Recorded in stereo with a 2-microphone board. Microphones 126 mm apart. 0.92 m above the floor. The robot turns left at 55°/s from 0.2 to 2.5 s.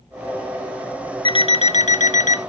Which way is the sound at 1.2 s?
140° left.